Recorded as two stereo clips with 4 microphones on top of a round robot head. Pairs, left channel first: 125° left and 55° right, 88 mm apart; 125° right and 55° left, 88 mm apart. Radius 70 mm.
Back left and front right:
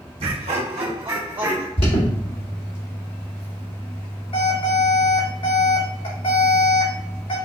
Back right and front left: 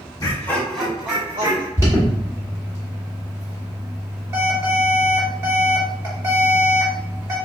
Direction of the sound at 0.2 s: 70° right.